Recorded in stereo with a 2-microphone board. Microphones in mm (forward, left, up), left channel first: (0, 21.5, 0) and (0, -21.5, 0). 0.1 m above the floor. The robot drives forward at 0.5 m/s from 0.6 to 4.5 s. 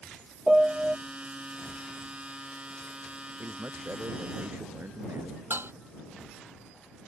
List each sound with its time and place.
0.5 s a piano: 20° right (ahead or behind)
3.4 s a man speaking: 65° right (ahead or behind); by 5.4 s 70° right (ahead or behind)
5.5 s dishes clattering: 65° right (ahead or behind)